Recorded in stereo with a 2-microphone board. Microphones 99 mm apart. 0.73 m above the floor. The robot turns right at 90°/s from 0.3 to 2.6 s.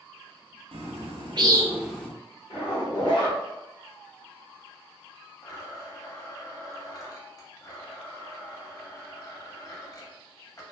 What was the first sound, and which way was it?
A bird, 70° right (ahead or behind).